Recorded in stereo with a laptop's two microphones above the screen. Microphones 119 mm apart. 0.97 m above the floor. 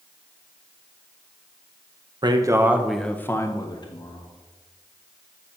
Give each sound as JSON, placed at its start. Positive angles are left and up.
{"t": 2.2, "sound": "a man speaking", "side_deg": -35, "distance_m": 0.6}